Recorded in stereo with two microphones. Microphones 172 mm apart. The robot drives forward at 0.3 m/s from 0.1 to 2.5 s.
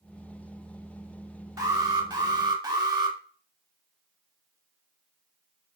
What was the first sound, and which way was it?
An alarm, 20° right (ahead or behind).